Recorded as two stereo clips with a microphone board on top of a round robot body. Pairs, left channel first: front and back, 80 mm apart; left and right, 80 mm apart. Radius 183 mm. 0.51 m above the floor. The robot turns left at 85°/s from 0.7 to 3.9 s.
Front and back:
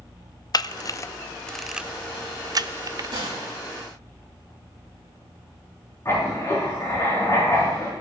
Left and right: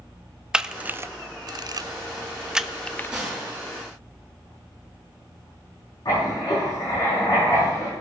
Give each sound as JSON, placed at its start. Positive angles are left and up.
{"t": 0.5, "sound": "a camera shutter", "azimuth_deg": -10, "distance_m": 0.5}
{"t": 3.1, "sound": "a gunshot", "azimuth_deg": -165, "distance_m": 4.5}
{"t": 6.0, "sound": "writing", "azimuth_deg": 55, "distance_m": 6.5}